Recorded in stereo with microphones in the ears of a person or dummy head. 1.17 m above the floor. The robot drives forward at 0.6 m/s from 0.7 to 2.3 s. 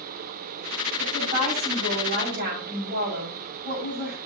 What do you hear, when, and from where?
1.0 s a woman speaking: 50° right (ahead or behind), 6 m; by 4.2 s 55° right (ahead or behind), 5.5 m